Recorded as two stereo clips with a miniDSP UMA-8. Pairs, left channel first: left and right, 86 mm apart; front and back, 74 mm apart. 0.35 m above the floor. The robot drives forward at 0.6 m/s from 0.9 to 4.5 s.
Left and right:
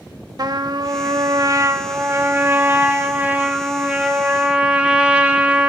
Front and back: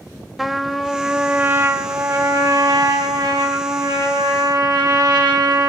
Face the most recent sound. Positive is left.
turn(degrees=-165)